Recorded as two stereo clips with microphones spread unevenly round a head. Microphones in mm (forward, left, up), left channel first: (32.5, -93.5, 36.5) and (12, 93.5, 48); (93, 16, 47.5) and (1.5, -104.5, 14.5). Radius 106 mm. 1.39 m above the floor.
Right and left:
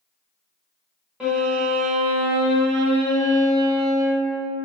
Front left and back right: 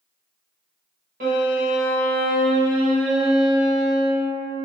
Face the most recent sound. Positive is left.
turn(degrees=-175)